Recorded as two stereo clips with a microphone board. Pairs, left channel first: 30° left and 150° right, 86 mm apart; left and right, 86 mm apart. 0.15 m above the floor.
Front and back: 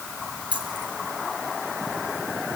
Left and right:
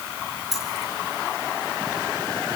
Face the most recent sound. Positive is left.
turn(degrees=-175)